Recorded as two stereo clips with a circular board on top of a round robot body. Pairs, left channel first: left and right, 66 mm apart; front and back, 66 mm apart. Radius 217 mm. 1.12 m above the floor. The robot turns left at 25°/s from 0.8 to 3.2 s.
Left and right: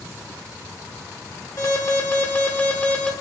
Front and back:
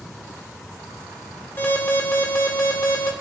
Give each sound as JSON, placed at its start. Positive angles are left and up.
{"t": 1.6, "sound": "an alarm", "azimuth_deg": 55, "distance_m": 2.0}